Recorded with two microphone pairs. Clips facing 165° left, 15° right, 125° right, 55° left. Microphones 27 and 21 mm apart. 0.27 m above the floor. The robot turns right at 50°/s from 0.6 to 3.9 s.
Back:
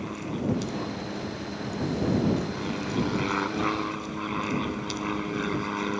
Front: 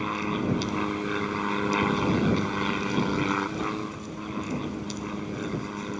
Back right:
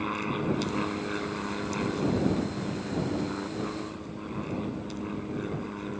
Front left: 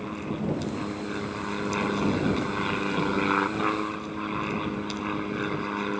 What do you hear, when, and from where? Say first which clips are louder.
0.0 s an aircraft: front 3 dB, back right 1 dB; 65° right; by 6.0 s 100° left